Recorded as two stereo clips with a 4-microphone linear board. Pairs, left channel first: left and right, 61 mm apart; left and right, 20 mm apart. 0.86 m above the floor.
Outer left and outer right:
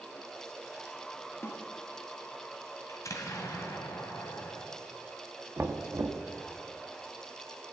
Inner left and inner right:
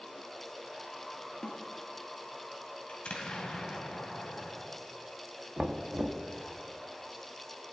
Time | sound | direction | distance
1.4 | a snare drum | 40° left (ahead or behind) | 1.9 m
2.9 | an explosion | 60° left (ahead or behind) | 2 m
5.6 | knocking | 40° right (ahead or behind) | 1.0 m